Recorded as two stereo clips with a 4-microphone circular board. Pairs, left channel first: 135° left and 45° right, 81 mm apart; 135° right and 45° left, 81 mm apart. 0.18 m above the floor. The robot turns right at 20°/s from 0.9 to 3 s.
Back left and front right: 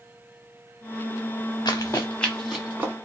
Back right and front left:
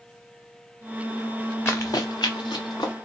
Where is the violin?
No violin in this recording.